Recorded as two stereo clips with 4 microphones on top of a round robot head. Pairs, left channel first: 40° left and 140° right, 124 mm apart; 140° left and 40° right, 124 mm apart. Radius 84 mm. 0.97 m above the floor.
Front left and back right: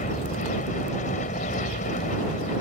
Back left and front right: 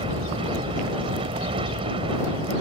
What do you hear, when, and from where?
0.0 s an aircraft: 10° left